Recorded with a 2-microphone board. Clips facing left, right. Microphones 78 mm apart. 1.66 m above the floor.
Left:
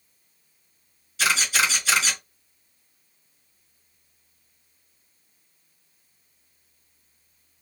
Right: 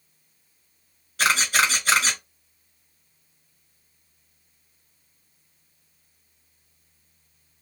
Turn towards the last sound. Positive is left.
turn(degrees=-55)  # may be behind; listen again after turning